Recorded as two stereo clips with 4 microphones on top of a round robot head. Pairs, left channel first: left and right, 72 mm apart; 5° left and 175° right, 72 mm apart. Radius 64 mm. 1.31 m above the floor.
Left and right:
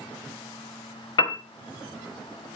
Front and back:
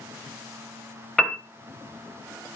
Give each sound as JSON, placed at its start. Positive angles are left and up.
{"t": 1.2, "sound": "a piano", "azimuth_deg": 95, "distance_m": 1.4}